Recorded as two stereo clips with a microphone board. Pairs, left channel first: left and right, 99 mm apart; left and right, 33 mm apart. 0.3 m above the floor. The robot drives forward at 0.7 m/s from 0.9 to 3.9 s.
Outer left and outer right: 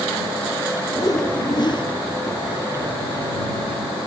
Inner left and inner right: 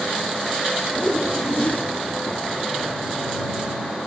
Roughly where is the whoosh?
Left.